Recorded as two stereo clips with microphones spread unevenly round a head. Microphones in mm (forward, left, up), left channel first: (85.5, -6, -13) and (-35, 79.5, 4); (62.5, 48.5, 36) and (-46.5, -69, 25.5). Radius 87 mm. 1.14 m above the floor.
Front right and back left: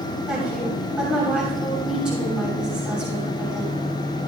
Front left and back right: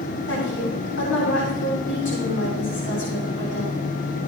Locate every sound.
0.3 s a woman speaking: 60° left, 7 m